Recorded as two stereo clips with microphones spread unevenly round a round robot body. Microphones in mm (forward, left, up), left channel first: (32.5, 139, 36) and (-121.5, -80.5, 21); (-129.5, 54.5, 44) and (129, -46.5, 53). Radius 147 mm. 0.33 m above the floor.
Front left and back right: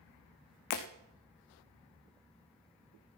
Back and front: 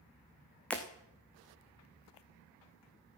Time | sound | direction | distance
0.7 | breaking glass | 70° left | 1.8 m